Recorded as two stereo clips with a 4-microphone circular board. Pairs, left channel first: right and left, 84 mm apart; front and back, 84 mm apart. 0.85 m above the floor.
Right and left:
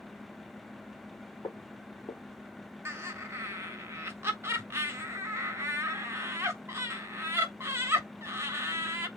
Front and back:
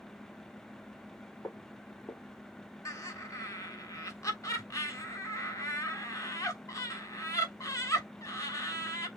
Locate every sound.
1.4 s footsteps: 65° right, 2.5 m
2.9 s laughter: 35° left, 1.5 m